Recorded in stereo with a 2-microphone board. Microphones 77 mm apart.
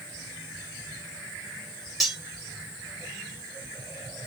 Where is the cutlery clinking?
Centre (ahead or behind), 1.1 m.